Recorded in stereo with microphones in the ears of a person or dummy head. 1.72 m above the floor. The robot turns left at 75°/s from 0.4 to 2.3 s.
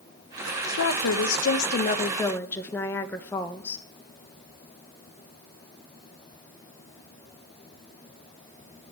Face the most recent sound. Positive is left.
turn(degrees=10)